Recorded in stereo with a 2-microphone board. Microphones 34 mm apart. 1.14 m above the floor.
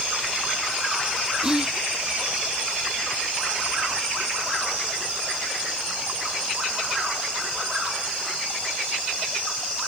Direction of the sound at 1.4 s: 20° right (ahead or behind).